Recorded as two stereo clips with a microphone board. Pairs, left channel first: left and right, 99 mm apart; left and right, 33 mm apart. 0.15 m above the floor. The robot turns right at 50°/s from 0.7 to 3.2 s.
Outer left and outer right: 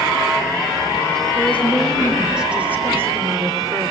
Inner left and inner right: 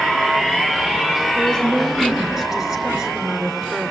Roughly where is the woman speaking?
Behind left.